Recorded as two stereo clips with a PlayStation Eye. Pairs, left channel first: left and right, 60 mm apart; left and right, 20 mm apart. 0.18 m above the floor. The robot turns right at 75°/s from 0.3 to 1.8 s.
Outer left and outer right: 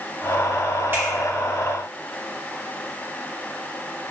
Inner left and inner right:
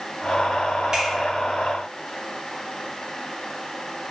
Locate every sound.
0.9 s a finger snap: 40° right (ahead or behind), 1.8 m; by 1.1 s 30° right (ahead or behind), 1.8 m